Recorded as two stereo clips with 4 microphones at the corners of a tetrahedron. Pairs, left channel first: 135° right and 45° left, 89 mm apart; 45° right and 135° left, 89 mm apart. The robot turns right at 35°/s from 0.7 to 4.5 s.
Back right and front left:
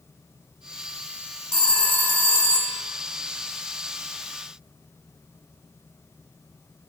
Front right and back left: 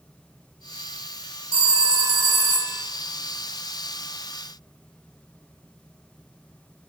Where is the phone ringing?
145° left, 1.3 m; by 2.8 s 170° right, 1.3 m.